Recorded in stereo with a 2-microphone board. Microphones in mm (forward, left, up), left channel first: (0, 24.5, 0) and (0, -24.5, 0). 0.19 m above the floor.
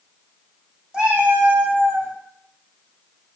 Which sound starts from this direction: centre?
A cat meowing, at 0.9 s.